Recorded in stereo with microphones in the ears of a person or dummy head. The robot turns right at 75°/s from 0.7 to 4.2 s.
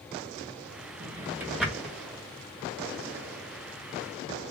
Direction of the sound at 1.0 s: 35° right (ahead or behind).